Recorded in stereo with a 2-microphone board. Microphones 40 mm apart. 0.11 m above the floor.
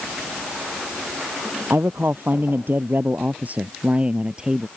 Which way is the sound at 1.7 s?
65° right (ahead or behind).